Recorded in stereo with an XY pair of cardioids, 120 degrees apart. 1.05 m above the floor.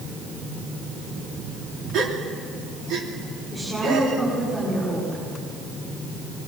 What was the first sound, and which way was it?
A gasp, 65° right.